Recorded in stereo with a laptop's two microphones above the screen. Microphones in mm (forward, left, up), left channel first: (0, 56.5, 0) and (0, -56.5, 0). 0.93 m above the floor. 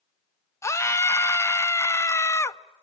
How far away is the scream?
About 1.0 m.